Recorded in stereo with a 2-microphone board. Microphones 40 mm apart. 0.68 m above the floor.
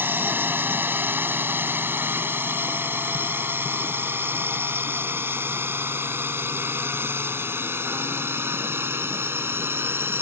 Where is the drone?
60° right (ahead or behind); by 10.2 s 75° right (ahead or behind).